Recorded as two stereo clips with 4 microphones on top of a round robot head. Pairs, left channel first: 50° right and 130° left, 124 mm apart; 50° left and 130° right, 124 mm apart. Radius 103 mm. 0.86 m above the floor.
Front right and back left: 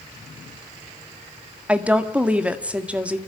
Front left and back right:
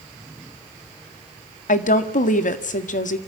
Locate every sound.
1.7 s a woman speaking: 50° left, 1.7 m